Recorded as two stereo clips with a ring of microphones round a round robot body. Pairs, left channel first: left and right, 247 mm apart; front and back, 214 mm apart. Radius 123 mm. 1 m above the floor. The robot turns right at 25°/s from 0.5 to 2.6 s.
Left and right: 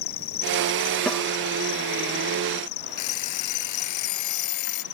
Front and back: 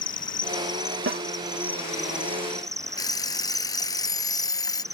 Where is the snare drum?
175° left; by 1.2 s straight behind.